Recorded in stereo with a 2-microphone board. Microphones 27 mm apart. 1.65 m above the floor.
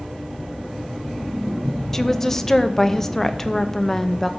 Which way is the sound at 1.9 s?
15° left (ahead or behind).